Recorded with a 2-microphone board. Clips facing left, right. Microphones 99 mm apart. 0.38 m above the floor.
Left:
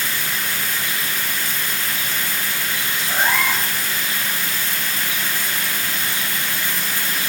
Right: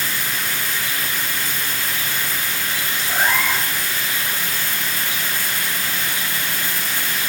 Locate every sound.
3.1 s a cat meowing: centre (ahead or behind), 1.9 m